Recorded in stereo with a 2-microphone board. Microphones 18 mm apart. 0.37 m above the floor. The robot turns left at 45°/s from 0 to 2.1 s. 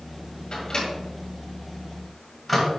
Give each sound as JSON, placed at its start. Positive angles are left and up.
{"t": 0.5, "sound": "a microwave", "side_deg": 55, "distance_m": 1.8}